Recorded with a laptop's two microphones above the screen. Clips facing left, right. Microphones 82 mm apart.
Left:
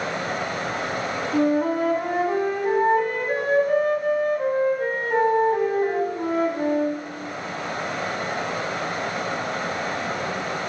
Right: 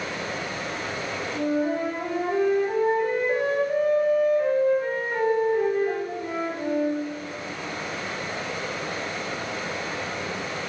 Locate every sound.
0.0 s running water: 50° left (ahead or behind), 2.5 m
1.3 s a flute: 75° left (ahead or behind), 3.5 m